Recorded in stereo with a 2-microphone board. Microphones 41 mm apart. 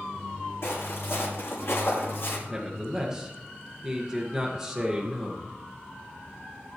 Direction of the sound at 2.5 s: 15° right (ahead or behind).